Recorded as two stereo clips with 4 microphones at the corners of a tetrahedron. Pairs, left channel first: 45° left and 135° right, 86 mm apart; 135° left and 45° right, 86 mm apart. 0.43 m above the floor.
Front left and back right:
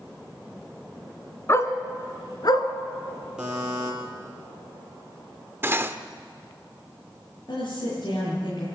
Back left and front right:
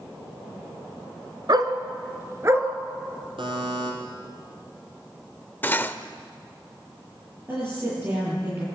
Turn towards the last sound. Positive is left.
turn(degrees=15)